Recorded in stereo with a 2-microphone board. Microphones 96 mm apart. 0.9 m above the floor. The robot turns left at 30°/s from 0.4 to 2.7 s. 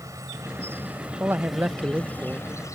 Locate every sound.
0.0 s an insect: 145° right; by 2.8 s 145° left
1.2 s a man speaking: 20° right (ahead or behind); by 2.5 s 10° right (ahead or behind)